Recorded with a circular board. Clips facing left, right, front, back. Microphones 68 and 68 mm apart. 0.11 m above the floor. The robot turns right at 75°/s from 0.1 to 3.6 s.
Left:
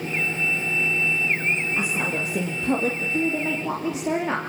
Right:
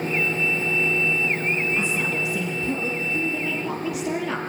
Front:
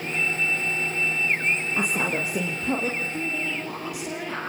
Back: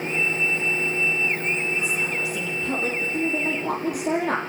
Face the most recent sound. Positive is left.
turn(degrees=145)